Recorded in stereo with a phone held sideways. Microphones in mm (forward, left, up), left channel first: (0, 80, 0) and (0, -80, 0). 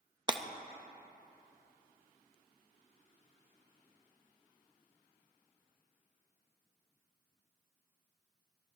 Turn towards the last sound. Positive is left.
turn(degrees=-30)  # may be behind; listen again after turning